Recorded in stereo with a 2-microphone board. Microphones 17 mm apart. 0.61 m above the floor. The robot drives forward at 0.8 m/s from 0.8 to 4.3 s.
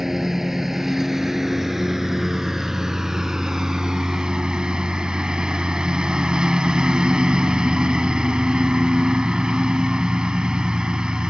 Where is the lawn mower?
20° right (ahead or behind); by 11.3 s 55° right (ahead or behind).